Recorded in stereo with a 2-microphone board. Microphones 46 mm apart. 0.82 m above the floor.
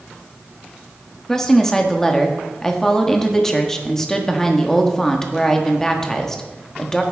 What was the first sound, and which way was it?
A woman speaking, 10° left (ahead or behind).